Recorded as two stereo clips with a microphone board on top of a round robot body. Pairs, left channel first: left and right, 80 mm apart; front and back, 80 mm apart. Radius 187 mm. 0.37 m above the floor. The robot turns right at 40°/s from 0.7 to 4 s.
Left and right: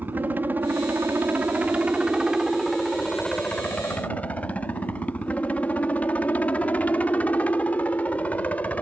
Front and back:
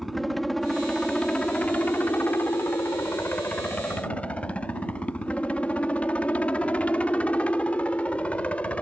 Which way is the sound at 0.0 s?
85° right.